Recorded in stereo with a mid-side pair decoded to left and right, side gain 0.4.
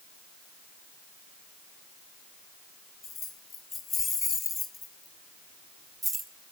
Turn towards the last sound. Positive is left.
turn(degrees=-35)